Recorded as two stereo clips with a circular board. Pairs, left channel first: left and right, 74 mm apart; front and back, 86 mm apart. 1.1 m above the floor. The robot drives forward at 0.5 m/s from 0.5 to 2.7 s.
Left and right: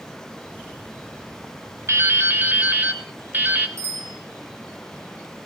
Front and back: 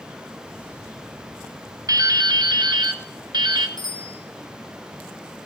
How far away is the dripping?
About 0.9 m.